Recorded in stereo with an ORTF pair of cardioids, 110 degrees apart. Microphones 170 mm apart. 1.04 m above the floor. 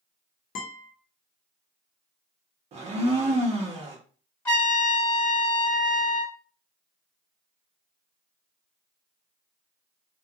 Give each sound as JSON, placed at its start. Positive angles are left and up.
{"t": 0.6, "sound": "a guitar", "azimuth_deg": 50, "distance_m": 0.8}
{"t": 2.7, "sound": "a blender", "azimuth_deg": -40, "distance_m": 0.9}
{"t": 4.5, "sound": "a trumpet", "azimuth_deg": 15, "distance_m": 1.5}